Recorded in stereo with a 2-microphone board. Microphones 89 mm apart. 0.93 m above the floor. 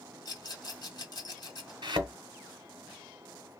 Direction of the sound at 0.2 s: 50° left (ahead or behind).